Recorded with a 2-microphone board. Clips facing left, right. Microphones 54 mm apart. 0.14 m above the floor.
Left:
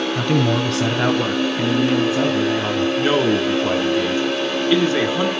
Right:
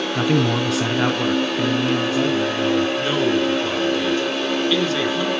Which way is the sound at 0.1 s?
10° right (ahead or behind).